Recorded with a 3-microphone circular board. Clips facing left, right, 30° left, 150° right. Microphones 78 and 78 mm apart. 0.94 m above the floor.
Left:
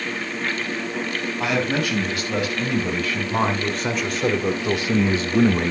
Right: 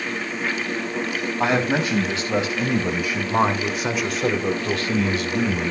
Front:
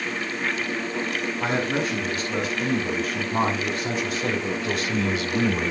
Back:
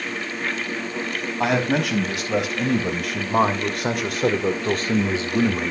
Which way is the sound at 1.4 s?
150° right.